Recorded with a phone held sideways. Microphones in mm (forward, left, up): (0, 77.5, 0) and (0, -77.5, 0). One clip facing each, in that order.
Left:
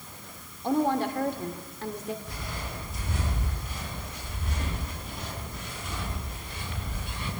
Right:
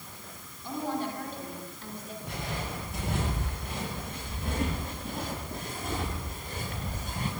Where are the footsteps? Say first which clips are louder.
Right 3 dB; 65° right (ahead or behind), 9.5 m; by 7.3 s 45° right (ahead or behind), 10.5 m.